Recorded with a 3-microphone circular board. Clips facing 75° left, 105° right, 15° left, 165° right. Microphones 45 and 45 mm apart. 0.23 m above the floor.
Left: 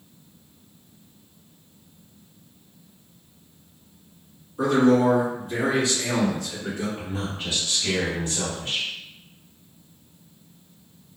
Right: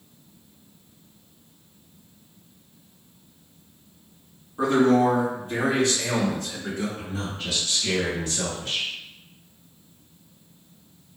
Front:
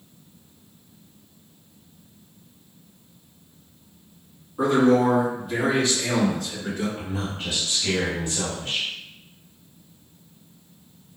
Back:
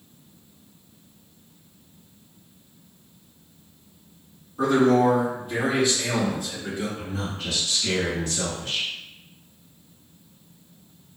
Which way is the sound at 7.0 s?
25° left.